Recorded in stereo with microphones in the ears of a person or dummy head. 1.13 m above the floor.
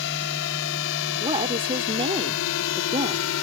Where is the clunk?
No clunk in this recording.